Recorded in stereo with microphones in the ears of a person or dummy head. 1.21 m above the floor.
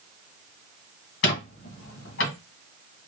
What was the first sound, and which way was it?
A squeak, 55° left (ahead or behind).